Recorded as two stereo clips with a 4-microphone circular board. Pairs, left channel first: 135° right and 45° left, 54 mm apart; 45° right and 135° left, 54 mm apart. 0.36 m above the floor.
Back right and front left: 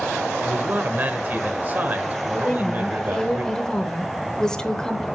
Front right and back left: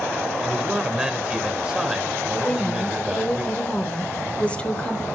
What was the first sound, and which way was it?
A man speaking, 65° left.